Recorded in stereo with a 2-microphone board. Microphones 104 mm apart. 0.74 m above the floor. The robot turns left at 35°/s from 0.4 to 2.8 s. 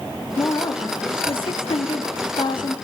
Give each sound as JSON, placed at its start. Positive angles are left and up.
{"t": 0.4, "sound": "a woman speaking", "azimuth_deg": 135, "distance_m": 0.8}